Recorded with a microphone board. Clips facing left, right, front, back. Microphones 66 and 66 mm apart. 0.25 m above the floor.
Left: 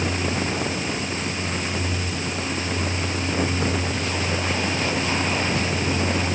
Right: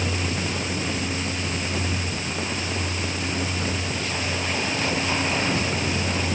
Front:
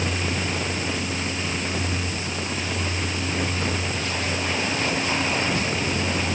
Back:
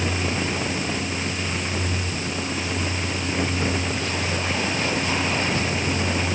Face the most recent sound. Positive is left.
No sound to turn to.